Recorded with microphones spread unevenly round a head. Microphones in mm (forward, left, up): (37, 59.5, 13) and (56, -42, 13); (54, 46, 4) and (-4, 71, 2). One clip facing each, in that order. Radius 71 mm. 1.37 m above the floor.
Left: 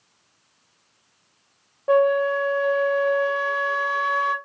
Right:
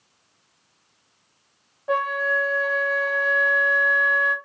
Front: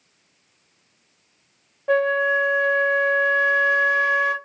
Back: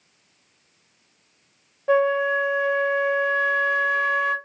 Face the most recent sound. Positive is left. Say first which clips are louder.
# left 6 dB, even
turn(degrees=65)